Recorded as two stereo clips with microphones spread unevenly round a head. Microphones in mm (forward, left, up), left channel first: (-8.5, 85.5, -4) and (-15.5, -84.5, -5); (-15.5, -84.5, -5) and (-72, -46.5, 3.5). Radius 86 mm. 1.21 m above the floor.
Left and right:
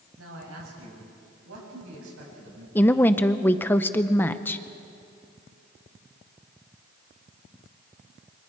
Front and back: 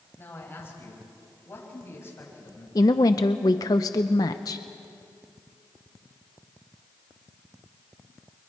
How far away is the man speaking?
About 7 m.